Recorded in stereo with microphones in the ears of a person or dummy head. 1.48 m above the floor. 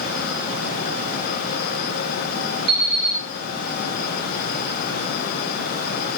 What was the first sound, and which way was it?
An alarm clock, 55° right (ahead or behind).